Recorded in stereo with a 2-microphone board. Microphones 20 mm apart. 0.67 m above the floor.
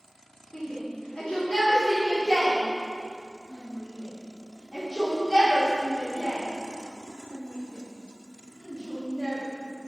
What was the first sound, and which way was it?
A shout, 50° left (ahead or behind).